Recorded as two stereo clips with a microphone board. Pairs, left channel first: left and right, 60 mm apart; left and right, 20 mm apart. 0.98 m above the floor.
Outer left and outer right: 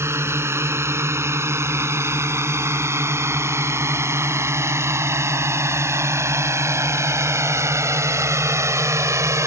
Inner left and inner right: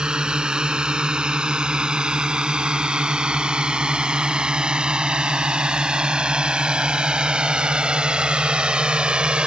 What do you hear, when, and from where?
0.0 s a drone: 50° right (ahead or behind); by 9.5 s 60° right (ahead or behind)